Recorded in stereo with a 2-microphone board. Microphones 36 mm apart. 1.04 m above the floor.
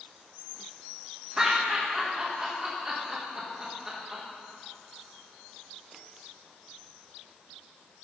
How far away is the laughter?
About 1.3 m.